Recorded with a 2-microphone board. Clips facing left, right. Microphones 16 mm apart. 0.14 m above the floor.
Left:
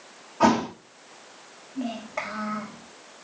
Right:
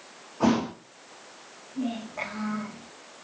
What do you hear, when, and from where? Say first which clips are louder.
0.4 s a thud: left 3 dB; 30° left (ahead or behind), 4 m
1.8 s a child speaking: even; 40° left (ahead or behind), 7 m